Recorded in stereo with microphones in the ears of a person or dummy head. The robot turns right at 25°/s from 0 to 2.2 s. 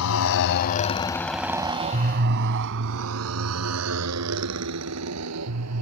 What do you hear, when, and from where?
0.0 s a motorcycle: 75° left (ahead or behind); by 5.8 s 85° right